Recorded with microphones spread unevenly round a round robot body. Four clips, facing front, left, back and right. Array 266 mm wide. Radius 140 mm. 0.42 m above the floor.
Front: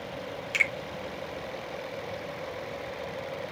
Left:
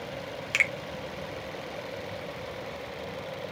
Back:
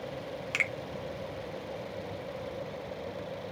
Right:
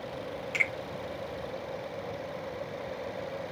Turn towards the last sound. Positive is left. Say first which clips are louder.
# left 4 dB, front 5 dB
turn(degrees=110)